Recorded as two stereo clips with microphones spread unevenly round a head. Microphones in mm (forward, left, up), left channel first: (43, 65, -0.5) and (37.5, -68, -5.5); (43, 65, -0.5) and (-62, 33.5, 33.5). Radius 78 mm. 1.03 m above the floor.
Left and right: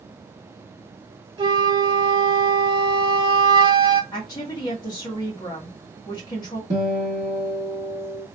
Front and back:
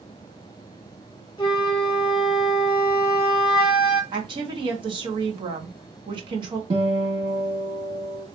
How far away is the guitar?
About 1.6 m.